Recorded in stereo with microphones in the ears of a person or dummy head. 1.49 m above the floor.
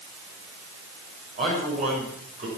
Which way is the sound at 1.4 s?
45° right (ahead or behind).